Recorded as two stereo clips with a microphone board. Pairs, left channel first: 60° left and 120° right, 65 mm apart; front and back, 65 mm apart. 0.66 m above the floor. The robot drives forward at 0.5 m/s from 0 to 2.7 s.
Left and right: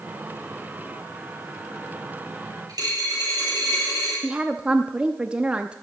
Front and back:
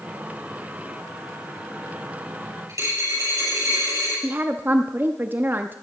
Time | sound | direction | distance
2.7 | a dropped coin | 145° right | 7 m
4.2 | a woman speaking | 175° right | 0.5 m